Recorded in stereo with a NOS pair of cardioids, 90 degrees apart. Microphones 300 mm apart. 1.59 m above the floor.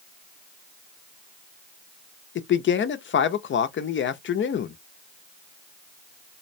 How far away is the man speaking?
About 0.6 m.